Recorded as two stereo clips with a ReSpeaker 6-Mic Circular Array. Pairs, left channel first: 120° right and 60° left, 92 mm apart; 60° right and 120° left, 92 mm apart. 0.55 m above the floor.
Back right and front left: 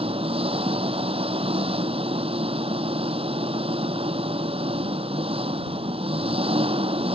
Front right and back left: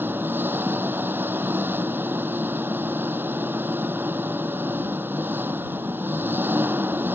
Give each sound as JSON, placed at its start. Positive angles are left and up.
{"t": 0.0, "sound": "an engine running", "azimuth_deg": 50}